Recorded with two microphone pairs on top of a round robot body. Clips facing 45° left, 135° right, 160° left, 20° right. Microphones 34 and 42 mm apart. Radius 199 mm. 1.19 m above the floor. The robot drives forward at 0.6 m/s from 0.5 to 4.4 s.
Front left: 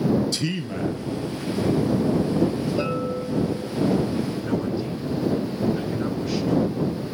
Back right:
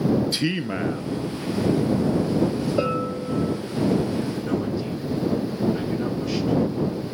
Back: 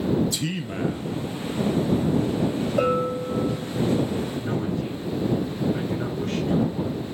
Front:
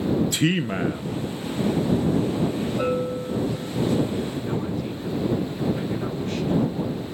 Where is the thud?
No thud in this recording.